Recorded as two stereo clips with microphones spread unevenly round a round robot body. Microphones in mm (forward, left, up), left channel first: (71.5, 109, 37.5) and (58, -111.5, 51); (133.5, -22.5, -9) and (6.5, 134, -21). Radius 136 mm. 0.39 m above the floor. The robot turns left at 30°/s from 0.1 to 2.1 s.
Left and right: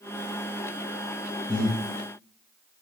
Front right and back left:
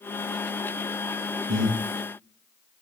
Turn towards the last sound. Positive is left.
turn(degrees=160)